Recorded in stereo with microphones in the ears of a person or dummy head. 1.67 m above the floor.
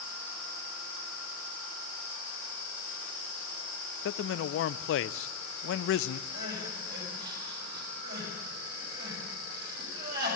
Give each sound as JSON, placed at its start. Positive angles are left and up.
{"t": 4.0, "sound": "a man speaking", "side_deg": 60, "distance_m": 0.5}
{"t": 6.3, "sound": "crying", "side_deg": -55, "distance_m": 6.0}